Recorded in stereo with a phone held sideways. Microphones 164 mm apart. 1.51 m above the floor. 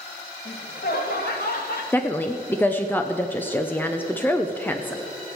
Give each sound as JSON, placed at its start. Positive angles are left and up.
{"t": 0.5, "sound": "laughter", "side_deg": 80, "distance_m": 2.0}
{"t": 1.9, "sound": "a woman speaking", "side_deg": 10, "distance_m": 0.6}